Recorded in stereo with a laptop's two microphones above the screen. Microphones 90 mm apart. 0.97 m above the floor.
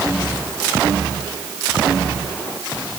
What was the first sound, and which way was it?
Only background noise.